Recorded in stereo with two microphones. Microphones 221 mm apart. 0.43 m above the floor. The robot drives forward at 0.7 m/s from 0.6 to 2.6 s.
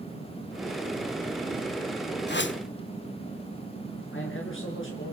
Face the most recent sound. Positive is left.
turn(degrees=65)  # may be behind; listen again after turning